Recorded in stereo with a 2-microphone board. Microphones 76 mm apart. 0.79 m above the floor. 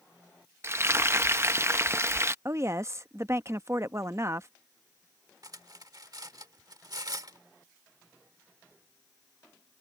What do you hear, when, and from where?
0.6 s frying: 35° right (ahead or behind)
2.5 s a woman speaking: 40° right (ahead or behind)
5.4 s cutlery clinking: 55° right (ahead or behind)